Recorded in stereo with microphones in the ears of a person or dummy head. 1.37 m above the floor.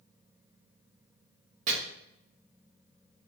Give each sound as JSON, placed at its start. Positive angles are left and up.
{"t": 1.7, "sound": "chopping", "side_deg": -45, "distance_m": 1.0}